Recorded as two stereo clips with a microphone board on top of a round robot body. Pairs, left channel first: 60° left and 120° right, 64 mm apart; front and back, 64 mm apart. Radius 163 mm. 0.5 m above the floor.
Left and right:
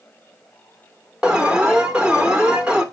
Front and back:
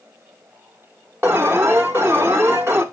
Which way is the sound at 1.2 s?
175° left.